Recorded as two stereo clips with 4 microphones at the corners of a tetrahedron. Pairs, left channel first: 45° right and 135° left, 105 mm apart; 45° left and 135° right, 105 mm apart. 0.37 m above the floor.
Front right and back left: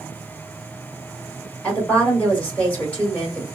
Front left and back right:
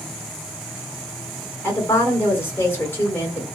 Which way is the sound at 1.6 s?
10° left.